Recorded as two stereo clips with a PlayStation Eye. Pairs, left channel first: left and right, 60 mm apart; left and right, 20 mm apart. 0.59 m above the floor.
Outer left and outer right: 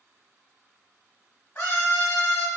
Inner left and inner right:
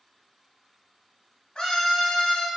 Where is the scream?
35° left (ahead or behind), 0.9 m.